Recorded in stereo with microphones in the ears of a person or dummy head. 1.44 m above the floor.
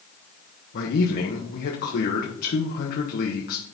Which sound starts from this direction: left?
A man speaking, at 0.7 s.